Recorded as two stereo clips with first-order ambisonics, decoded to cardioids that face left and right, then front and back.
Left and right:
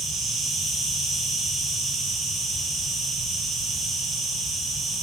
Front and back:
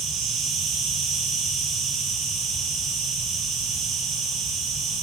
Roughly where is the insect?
Behind right.